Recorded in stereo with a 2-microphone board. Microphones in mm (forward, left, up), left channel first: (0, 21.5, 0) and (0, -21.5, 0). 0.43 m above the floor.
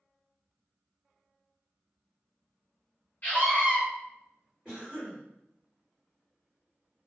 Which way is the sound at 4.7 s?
Centre (ahead or behind).